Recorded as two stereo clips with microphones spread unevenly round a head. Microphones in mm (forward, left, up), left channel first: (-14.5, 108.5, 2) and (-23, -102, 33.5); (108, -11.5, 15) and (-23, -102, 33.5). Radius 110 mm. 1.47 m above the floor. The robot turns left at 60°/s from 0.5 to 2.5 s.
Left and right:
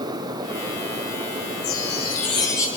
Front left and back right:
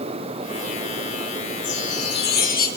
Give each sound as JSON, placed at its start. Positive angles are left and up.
{"t": 1.6, "sound": "a chime", "azimuth_deg": 60, "distance_m": 4.5}